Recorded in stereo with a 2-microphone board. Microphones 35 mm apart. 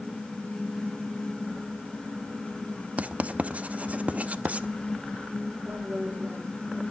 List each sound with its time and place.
3.0 s writing: 45° right (ahead or behind), 0.8 m
5.7 s a woman speaking: 75° right (ahead or behind), 4.5 m